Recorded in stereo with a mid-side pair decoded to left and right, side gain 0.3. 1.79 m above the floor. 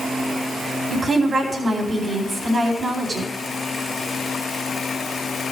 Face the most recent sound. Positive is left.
turn(degrees=-50)